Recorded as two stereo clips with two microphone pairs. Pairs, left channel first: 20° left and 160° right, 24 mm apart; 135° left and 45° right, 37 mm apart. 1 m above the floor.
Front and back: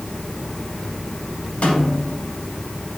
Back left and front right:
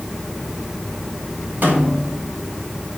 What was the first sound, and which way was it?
A snare drum, 15° right.